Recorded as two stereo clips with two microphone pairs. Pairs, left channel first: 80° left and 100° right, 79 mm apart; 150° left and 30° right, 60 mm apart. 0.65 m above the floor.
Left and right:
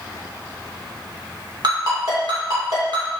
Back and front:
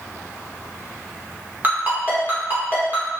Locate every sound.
1.6 s a ringtone: 90° right, 1.5 m